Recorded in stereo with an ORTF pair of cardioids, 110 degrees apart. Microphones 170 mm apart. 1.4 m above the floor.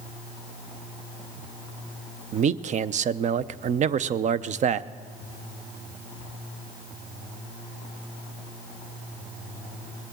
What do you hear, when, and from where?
2.3 s a man speaking: 45° right, 0.5 m